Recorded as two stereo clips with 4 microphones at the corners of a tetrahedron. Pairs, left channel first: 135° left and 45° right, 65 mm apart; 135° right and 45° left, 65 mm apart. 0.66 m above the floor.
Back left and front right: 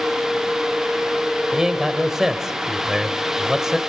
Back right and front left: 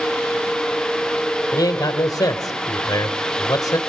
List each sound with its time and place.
1.5 s a man speaking: 130° right, 2 m